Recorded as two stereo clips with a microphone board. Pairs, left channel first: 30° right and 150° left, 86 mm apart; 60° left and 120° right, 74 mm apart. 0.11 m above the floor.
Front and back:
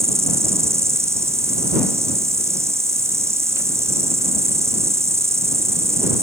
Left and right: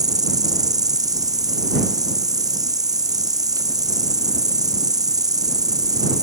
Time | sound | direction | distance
0.0 | an insect | 155° right | ?